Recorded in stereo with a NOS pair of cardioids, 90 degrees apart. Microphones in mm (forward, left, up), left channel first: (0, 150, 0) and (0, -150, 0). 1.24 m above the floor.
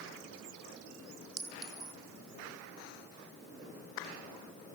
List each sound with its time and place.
1.4 s a clink: 55° right, 3.5 m